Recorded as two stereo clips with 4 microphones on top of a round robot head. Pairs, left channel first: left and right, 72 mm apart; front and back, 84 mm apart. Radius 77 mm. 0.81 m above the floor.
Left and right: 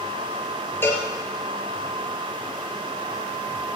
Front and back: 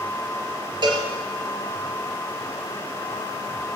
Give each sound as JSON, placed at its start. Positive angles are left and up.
{"t": 0.8, "sound": "a cowbell", "azimuth_deg": 150, "distance_m": 3.0}